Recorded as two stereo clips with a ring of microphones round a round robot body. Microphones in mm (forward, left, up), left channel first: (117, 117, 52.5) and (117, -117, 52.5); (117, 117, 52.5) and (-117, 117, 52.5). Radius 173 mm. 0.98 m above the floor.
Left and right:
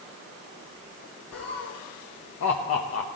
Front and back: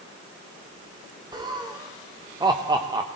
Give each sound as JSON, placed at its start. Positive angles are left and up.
{"t": 1.3, "sound": "laughter", "azimuth_deg": 105, "distance_m": 0.9}